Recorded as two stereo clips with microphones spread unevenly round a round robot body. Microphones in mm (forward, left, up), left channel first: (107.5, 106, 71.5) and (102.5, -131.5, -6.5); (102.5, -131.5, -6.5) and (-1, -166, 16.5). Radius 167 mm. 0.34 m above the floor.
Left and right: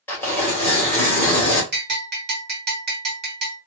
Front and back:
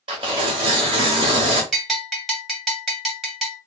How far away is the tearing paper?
About 1.6 m.